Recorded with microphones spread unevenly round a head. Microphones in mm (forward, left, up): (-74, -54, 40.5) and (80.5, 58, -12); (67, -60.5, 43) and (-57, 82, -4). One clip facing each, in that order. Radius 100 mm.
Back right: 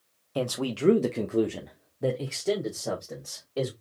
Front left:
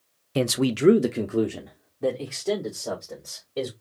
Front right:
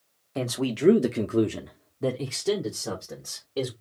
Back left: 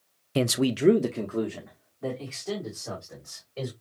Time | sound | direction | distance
0.3 | a man speaking | 95° left | 0.5 m